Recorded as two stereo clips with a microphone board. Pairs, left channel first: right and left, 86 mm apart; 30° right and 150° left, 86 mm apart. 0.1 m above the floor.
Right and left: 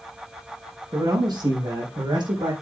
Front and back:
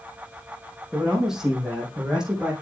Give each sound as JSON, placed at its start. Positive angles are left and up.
{"t": 0.9, "sound": "a man speaking", "azimuth_deg": 65, "distance_m": 4.0}